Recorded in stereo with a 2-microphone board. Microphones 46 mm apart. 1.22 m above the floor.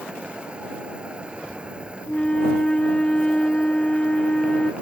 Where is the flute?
20° left (ahead or behind).